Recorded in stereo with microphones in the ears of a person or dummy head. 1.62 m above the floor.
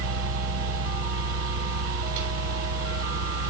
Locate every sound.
0.0 s a fan: 80° right, 3.5 m